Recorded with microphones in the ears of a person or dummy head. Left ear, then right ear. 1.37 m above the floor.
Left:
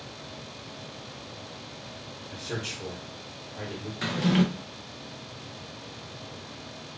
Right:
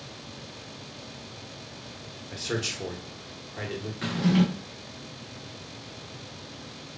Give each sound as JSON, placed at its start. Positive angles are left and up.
{"t": 2.3, "sound": "a man speaking", "side_deg": -70, "distance_m": 1.5}
{"t": 4.0, "sound": "a drawer", "side_deg": 15, "distance_m": 0.6}